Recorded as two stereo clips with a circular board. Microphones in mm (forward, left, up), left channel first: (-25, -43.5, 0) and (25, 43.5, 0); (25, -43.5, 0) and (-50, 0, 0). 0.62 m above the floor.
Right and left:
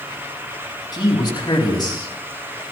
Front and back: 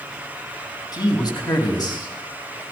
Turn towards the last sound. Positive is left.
turn(degrees=-70)